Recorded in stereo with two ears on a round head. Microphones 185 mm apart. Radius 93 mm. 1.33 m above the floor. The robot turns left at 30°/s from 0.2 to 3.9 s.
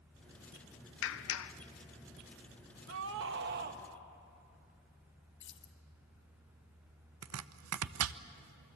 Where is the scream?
75° right (ahead or behind), 1.9 m; by 3.8 s 45° right (ahead or behind), 1.9 m.